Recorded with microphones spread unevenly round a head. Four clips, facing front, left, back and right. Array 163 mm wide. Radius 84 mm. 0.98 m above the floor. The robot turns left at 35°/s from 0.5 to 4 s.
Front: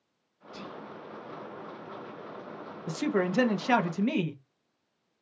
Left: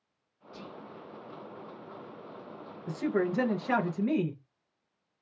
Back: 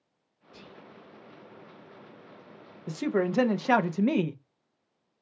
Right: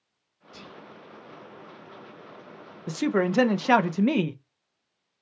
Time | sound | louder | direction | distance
0.5 | whispering | left 1 dB, front 8 dB | 30° left | 1.5 m
2.9 | a woman speaking | right 5 dB, back 1 dB | 45° right | 0.5 m